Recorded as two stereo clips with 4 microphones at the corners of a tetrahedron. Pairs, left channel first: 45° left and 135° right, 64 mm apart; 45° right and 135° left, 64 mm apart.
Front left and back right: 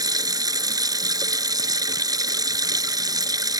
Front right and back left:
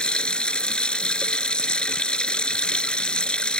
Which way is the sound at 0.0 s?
120° right.